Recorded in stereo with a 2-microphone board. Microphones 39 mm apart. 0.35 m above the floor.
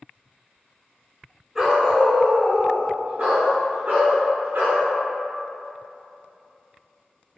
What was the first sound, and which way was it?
A dog barking, 15° right (ahead or behind).